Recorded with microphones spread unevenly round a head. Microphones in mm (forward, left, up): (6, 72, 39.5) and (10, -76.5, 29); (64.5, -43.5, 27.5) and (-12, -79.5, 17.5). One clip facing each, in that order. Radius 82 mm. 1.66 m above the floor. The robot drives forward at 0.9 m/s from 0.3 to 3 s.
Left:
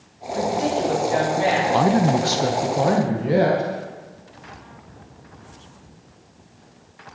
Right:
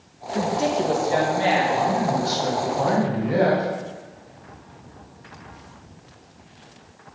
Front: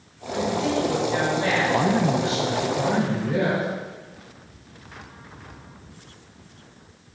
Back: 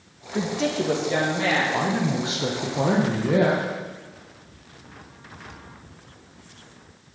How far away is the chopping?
I don't hear chopping.